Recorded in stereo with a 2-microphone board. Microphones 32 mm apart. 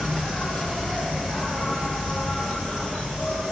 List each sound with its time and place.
0.0 s an insect: 30° left (ahead or behind), 0.7 m